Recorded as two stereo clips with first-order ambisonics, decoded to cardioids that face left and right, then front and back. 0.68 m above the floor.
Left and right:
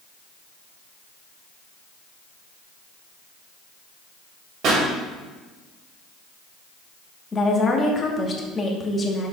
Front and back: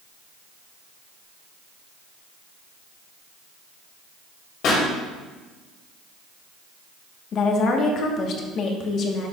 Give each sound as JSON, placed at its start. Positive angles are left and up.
{"t": 4.6, "sound": "a pop", "azimuth_deg": -45, "distance_m": 2.5}
{"t": 7.3, "sound": "a woman speaking", "azimuth_deg": 30, "distance_m": 1.2}